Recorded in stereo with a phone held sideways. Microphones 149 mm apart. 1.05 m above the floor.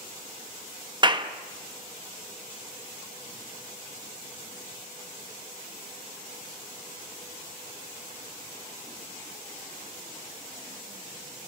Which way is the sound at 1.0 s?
30° right (ahead or behind).